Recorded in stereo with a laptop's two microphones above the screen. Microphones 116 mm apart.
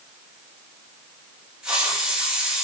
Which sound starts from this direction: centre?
A hiss, at 1.6 s.